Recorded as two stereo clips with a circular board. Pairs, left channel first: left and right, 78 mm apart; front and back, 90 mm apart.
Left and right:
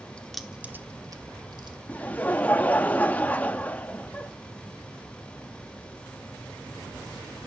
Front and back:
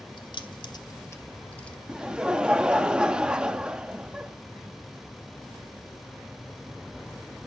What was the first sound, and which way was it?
Keys jangling, 15° left.